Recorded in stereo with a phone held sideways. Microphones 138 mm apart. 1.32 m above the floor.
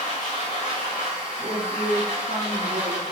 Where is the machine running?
55° left (ahead or behind), 1.1 m.